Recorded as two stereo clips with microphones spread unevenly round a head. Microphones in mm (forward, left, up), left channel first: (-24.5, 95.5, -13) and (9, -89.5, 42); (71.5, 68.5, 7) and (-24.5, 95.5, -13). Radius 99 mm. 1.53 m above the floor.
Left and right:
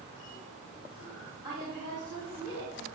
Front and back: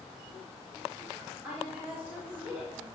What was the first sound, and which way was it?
A woman speaking, 95° left.